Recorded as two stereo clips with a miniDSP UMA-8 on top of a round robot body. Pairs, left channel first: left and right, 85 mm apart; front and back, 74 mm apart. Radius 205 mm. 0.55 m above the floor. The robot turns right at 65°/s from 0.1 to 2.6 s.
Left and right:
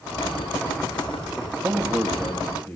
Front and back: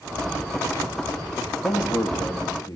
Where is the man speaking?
40° right, 1.3 m; by 2.8 s 20° left, 1.3 m.